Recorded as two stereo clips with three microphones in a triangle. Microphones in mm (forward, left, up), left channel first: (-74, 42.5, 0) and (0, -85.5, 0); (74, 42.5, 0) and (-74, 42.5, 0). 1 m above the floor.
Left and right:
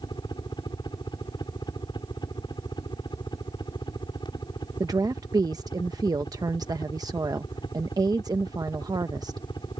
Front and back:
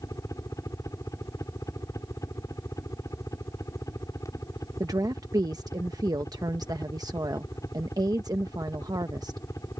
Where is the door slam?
No door slam in this recording.